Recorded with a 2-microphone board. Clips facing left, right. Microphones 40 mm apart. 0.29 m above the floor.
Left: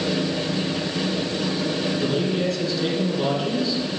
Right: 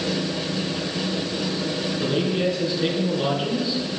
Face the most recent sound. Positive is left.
turn(degrees=-20)  # may be behind; listen again after turning